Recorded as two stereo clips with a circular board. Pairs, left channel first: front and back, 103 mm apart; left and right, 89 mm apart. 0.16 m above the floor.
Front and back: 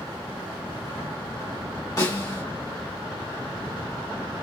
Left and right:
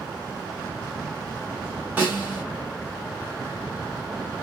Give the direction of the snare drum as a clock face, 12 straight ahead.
1 o'clock.